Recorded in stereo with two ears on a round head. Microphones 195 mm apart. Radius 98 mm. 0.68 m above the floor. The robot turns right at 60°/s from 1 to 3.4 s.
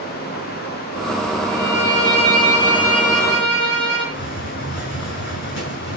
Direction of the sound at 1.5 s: 85° right.